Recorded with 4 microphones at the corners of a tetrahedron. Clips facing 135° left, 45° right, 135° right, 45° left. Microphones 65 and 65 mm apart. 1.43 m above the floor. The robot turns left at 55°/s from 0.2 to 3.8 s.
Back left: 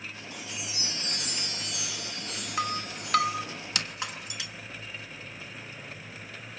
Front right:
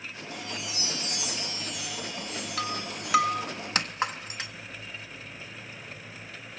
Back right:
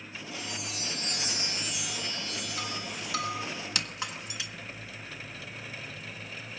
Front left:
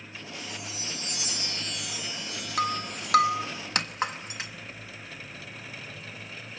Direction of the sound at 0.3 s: 140° right.